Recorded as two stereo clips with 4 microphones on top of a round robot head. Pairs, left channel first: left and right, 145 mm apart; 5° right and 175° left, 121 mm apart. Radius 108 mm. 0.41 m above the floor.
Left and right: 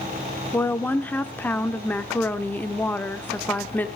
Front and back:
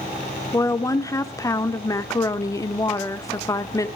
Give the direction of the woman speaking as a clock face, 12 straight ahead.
11 o'clock.